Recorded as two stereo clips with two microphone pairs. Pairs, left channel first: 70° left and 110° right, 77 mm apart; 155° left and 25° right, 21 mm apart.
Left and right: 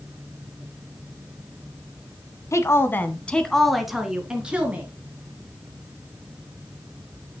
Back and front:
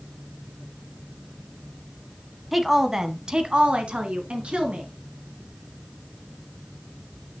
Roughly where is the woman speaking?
Ahead left.